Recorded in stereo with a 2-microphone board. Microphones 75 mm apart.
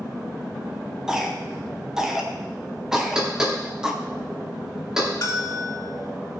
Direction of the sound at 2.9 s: 10° right (ahead or behind).